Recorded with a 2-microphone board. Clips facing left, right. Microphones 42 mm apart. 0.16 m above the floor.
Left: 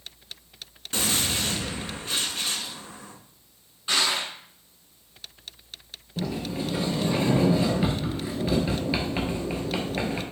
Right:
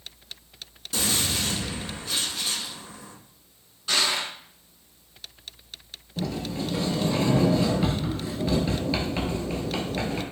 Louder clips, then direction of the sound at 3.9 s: Even; 25° left (ahead or behind).